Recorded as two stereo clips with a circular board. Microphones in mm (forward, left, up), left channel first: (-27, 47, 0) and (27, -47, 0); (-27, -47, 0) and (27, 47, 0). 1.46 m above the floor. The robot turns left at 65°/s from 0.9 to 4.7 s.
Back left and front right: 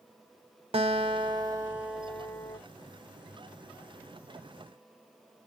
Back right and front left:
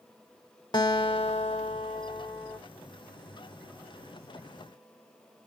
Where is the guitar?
75° right, 0.7 m; by 2.6 s 175° left, 0.7 m.